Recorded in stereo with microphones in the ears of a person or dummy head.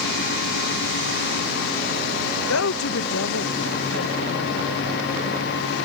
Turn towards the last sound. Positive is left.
turn(degrees=75)  # may be behind; listen again after turning